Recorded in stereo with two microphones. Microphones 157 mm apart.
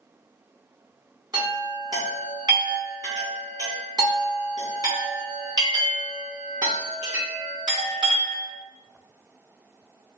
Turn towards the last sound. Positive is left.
turn(degrees=-25)  # may be behind; listen again after turning